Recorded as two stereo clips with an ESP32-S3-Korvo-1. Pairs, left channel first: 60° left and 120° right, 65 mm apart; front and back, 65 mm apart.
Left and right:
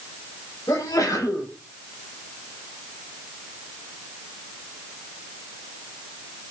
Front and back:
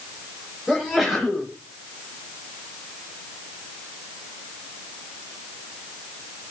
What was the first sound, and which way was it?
A sneeze, 95° left.